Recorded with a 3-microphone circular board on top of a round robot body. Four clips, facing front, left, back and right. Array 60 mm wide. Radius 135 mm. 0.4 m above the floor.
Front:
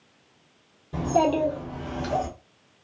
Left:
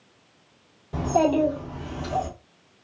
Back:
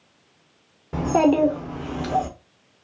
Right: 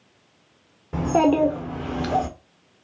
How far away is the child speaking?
About 1.1 m.